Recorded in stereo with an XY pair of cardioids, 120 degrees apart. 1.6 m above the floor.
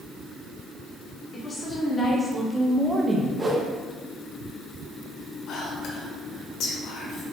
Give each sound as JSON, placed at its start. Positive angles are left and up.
{"t": 1.3, "sound": "a woman speaking", "azimuth_deg": 35, "distance_m": 1.4}
{"t": 3.4, "sound": "a whoosh", "azimuth_deg": -20, "distance_m": 0.8}
{"t": 5.5, "sound": "whispering", "azimuth_deg": 60, "distance_m": 1.3}